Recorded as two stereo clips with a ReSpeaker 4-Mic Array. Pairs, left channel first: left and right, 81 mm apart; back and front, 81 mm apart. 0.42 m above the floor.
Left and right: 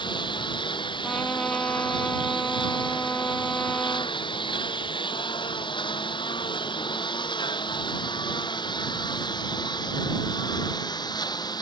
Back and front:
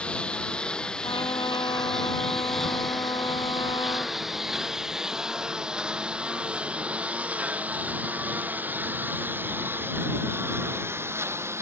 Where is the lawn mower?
105° left; by 11.6 s 55° left.